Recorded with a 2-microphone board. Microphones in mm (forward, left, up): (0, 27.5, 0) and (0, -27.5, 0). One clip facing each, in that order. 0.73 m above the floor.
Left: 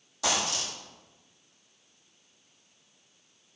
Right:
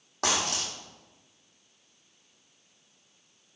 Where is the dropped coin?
50° right (ahead or behind), 1.9 m.